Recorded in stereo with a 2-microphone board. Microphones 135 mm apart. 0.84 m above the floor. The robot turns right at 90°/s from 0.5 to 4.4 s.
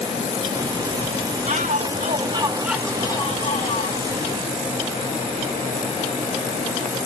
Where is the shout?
115° right, 1.5 m; by 4.0 s 110° left, 1.5 m.